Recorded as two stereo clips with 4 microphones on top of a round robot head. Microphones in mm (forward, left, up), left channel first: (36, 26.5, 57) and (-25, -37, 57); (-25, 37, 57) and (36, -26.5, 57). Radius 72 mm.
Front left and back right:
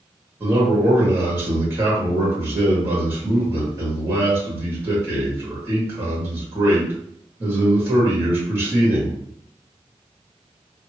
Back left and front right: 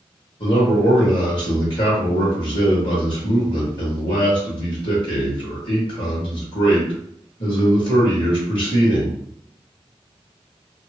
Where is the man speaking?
160° left, 1.8 m.